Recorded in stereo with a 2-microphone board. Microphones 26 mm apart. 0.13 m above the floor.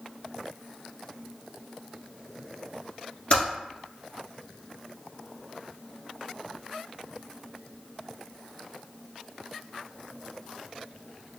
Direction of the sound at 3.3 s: 50° left (ahead or behind).